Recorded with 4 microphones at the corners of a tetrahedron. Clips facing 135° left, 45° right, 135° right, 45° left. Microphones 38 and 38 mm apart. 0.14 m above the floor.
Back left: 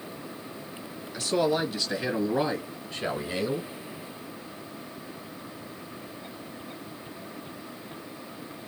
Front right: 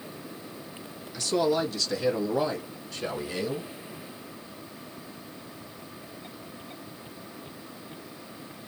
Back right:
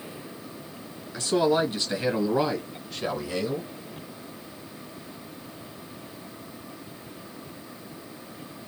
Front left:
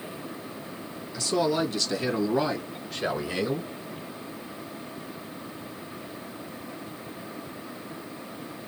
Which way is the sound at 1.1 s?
160° right.